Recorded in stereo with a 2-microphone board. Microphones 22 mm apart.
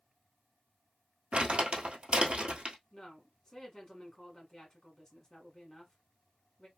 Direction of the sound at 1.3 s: 65° right (ahead or behind).